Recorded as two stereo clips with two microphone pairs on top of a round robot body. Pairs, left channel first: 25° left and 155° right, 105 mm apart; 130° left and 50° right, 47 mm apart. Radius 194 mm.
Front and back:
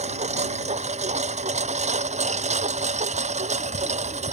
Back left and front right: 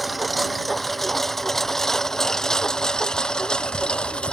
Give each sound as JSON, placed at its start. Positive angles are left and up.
{"t": 0.0, "sound": "a lawn mower", "azimuth_deg": -140}